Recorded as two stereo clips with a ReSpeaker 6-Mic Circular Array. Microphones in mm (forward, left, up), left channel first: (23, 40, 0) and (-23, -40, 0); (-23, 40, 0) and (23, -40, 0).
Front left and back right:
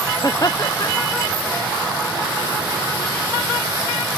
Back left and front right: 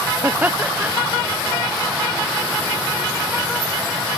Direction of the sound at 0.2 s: 10° left.